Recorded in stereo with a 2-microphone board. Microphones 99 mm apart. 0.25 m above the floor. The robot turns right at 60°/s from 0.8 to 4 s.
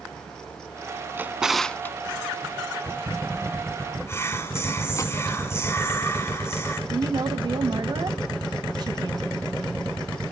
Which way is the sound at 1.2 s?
20° right (ahead or behind).